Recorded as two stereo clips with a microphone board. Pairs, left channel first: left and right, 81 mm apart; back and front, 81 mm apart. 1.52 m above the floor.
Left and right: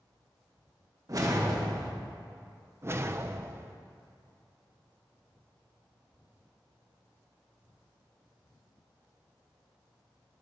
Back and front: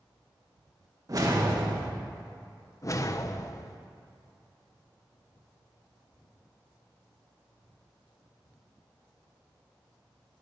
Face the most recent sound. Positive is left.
turn(degrees=-140)